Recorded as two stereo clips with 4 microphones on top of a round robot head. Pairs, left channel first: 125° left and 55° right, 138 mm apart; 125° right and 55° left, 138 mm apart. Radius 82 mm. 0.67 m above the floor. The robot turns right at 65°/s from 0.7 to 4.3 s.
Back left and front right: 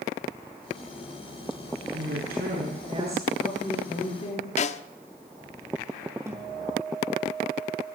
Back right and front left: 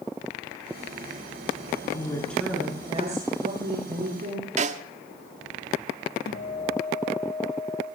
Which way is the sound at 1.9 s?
65° right.